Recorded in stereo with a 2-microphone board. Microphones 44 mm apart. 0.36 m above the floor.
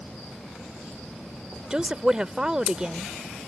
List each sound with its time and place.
1.7 s a woman speaking: 20° right (ahead or behind)